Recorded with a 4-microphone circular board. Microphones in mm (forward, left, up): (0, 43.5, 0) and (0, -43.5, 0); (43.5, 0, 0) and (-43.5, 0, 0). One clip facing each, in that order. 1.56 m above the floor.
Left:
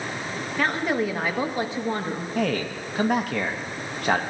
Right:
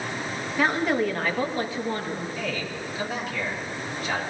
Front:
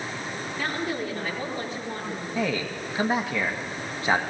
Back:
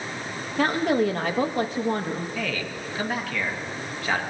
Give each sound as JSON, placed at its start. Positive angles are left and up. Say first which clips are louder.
{"t": 0.6, "sound": "a woman speaking", "louder": "right 1 dB, back 9 dB", "azimuth_deg": -175, "distance_m": 1.8}
{"t": 2.4, "sound": "a man speaking", "louder": "left 5 dB, front 3 dB", "azimuth_deg": 65, "distance_m": 1.7}